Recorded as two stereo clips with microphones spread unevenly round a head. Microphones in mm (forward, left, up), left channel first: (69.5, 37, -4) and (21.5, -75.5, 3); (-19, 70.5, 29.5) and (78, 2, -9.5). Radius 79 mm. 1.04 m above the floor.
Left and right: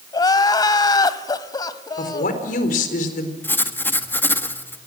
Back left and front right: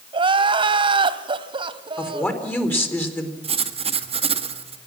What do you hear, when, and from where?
0.1 s crying: 20° left, 1.1 m
2.0 s a woman speaking: 70° left, 4 m
3.4 s writing: 5° right, 1.7 m